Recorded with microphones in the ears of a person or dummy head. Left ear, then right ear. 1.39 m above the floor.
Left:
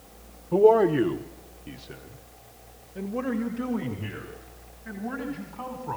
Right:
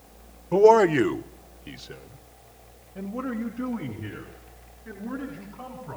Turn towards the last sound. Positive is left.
turn(degrees=20)  # may be behind; listen again after turning